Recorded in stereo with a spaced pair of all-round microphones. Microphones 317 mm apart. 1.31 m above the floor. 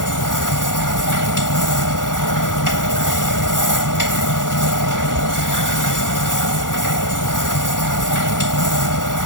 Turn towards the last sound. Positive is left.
turn(degrees=80)